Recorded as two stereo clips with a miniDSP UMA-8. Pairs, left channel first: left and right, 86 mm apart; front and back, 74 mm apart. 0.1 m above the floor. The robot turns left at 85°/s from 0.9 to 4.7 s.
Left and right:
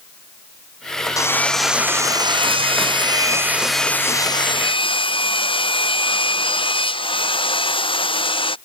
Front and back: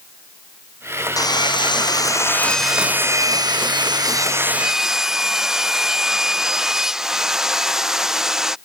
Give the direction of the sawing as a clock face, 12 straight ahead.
11 o'clock.